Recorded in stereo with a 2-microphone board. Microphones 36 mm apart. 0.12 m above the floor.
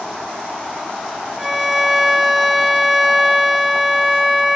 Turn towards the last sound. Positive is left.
turn(degrees=-5)  # may be behind; listen again after turning